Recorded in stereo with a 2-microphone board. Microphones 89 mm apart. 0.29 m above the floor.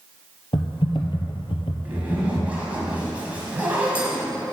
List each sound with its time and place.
0.5 s typing on a keyboard: 80° left, 1.0 m
1.9 s a zipper: 15° right (ahead or behind), 1.9 m